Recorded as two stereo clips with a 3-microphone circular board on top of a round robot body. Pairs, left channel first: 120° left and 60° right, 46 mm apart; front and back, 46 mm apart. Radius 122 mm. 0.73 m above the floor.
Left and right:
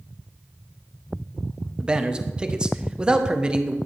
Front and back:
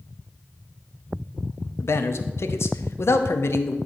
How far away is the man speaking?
About 0.8 m.